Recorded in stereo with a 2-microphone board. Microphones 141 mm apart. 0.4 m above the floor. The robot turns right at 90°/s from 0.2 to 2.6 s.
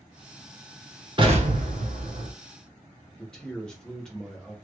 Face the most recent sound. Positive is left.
turn(degrees=5)  # may be behind; listen again after turning